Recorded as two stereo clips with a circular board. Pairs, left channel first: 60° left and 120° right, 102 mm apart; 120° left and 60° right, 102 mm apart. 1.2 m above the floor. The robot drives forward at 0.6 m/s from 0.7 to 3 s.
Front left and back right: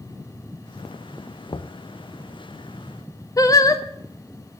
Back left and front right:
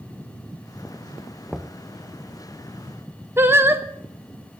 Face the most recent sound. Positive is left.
turn(degrees=5)